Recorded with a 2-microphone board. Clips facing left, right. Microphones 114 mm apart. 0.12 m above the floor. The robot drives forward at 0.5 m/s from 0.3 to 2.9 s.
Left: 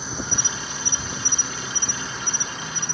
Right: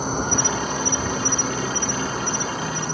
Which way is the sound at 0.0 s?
50° right (ahead or behind).